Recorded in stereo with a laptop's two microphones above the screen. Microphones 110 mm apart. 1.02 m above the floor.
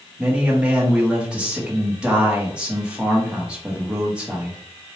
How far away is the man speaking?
About 0.9 m.